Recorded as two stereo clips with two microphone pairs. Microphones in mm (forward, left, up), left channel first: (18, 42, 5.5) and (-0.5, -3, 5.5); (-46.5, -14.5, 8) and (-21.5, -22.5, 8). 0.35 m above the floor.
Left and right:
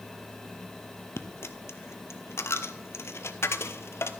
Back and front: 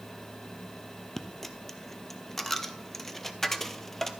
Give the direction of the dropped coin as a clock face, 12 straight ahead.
9 o'clock.